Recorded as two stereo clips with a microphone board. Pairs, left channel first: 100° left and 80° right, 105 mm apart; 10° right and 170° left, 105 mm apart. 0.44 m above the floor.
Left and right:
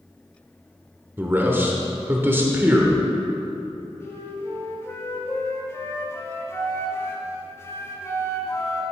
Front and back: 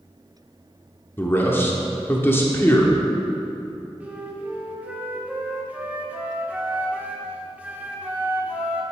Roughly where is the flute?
Left.